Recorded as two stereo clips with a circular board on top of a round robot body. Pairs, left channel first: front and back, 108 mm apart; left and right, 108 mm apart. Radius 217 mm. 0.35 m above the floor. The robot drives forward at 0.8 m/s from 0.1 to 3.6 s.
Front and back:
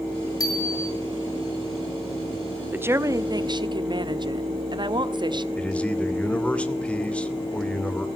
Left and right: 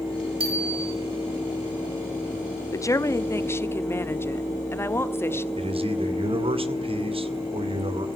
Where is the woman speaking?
120° left, 1.2 m; by 5.5 s 150° left, 1.6 m.